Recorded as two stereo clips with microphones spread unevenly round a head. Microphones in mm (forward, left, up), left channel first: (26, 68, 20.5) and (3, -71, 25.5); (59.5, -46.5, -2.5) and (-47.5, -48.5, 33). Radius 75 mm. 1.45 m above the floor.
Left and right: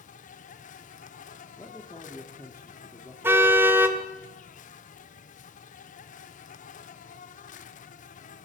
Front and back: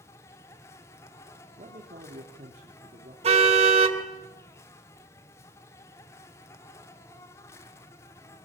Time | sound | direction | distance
0.0 | an insect | 60° left | 1.7 m
1.6 | a man speaking | 155° left | 3 m
3.2 | a car horn | 175° right | 2.5 m